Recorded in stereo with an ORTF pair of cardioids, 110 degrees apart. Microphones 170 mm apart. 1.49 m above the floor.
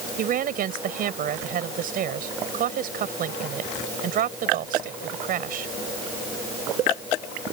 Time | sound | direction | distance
0.2 | a woman speaking | 55° right | ?